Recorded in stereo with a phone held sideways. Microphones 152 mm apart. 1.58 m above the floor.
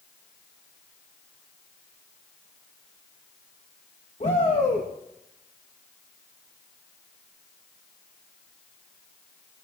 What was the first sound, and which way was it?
A shout, 45° left (ahead or behind).